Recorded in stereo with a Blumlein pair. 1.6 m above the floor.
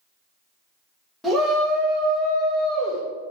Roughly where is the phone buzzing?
No phone buzzing in this recording.